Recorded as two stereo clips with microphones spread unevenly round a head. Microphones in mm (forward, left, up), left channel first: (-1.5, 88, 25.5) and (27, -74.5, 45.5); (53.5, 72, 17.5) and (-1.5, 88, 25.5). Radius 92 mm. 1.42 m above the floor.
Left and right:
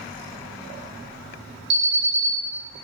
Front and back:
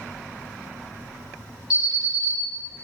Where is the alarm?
110° right, 1.3 m.